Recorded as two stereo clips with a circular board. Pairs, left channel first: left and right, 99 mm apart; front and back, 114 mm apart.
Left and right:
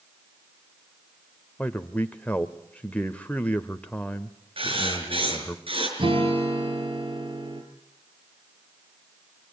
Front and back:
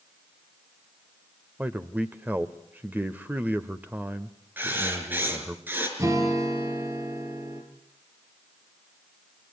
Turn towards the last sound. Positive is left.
turn(degrees=-120)